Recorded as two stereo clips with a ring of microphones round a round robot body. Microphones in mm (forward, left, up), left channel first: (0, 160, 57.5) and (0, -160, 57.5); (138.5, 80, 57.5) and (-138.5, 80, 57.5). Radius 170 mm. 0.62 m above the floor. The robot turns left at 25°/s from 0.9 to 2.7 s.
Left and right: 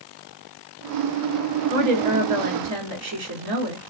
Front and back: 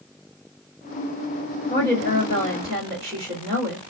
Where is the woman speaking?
80° right, 1.8 m; by 3.8 s 110° right, 1.8 m.